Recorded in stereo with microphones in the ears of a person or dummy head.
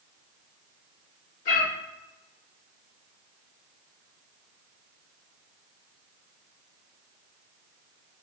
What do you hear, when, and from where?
1.4 s a cat meowing: 50° left (ahead or behind), 1.4 m